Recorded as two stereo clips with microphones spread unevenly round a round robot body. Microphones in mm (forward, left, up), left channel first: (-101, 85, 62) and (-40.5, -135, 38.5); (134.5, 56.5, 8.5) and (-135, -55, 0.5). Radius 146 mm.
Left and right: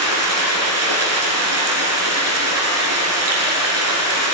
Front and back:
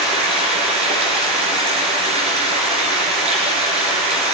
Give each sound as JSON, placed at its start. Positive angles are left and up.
{"t": 0.0, "sound": "running water", "azimuth_deg": -85, "distance_m": 2.5}